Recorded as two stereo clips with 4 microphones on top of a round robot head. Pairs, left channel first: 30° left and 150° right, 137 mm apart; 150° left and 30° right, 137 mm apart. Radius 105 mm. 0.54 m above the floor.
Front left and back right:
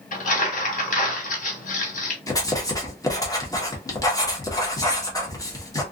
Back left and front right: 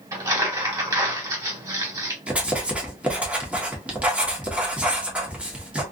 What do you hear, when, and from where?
0.1 s crumpling: 35° left, 2.0 m
2.3 s writing: 35° left, 1.4 m